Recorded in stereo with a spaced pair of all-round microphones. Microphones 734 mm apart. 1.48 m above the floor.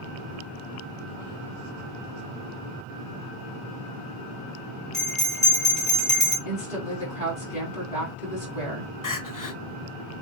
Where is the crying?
30° left (ahead or behind), 0.6 m.